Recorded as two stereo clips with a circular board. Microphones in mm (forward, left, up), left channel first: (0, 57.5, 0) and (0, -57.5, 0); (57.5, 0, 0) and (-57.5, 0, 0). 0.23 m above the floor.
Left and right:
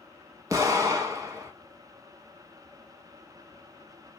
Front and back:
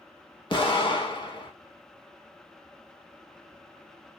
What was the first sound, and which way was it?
An explosion, 35° right.